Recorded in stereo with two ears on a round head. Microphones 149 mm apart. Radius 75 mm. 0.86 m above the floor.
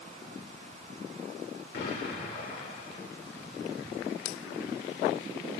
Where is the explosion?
70° left (ahead or behind), 2.5 m.